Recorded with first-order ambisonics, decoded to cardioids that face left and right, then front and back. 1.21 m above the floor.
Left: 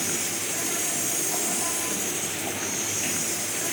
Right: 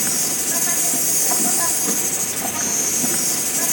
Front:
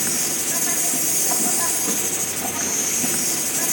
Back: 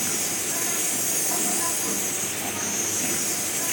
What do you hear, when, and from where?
0.0 s an insect: 70° right, 3 m